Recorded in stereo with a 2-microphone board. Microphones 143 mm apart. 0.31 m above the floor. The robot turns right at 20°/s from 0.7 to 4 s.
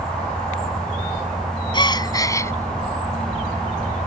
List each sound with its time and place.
1.7 s a gasp: 35° left (ahead or behind); by 2.5 s 20° left (ahead or behind)